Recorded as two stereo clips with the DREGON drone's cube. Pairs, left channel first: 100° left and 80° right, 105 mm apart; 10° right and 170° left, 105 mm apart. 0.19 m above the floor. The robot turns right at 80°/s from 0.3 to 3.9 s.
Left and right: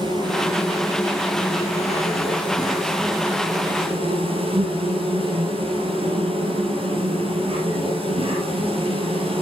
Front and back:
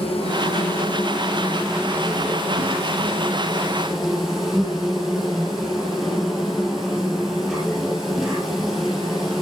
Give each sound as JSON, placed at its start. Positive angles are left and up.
{"t": 0.0, "sound": "an insect", "azimuth_deg": -35, "distance_m": 10.0}